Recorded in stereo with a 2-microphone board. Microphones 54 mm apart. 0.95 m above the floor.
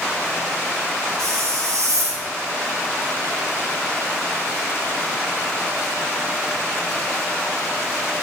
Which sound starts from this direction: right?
A hiss, at 1.2 s.